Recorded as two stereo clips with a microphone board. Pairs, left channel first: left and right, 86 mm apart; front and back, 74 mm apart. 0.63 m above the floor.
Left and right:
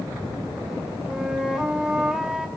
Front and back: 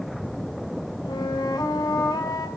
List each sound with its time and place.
1.1 s a flute: 5° right, 3 m